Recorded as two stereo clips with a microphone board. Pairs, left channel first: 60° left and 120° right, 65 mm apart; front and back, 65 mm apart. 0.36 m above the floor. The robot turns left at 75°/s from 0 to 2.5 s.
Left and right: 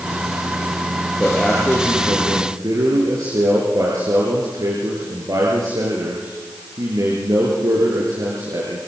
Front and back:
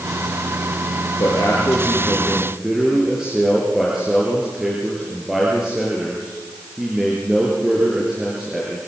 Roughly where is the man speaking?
Ahead.